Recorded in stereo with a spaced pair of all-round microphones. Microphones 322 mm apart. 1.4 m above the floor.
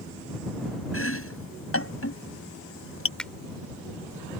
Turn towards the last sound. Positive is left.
turn(degrees=5)  # may be behind; listen again after turning